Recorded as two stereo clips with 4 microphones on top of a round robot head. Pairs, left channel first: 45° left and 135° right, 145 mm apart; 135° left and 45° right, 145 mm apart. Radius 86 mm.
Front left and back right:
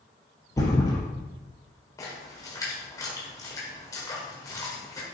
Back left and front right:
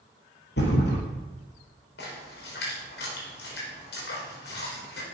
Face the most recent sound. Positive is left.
turn(degrees=115)